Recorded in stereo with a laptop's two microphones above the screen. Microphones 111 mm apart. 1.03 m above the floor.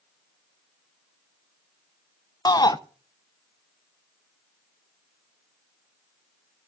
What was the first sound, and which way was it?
A shout, 35° left (ahead or behind).